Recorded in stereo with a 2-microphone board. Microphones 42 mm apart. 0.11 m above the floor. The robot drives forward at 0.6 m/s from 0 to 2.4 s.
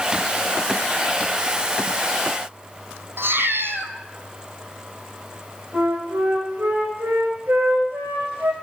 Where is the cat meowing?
65° right (ahead or behind), 1.5 m.